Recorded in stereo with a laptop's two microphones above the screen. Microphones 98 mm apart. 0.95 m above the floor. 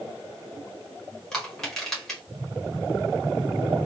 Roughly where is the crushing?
Centre.